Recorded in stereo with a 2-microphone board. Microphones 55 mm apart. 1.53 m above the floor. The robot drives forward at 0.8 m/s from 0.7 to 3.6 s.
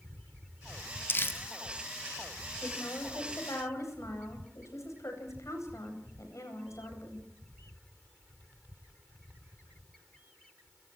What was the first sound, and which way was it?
Crumpling, 45° left (ahead or behind).